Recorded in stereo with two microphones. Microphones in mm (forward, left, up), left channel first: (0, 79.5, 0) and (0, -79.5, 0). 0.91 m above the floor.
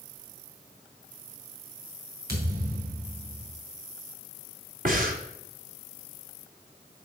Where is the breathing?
60° right (ahead or behind), 1.6 m.